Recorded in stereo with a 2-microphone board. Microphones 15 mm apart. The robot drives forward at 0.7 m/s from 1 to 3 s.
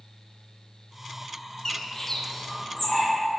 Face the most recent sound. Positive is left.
turn(degrees=15)  # may be behind; listen again after turning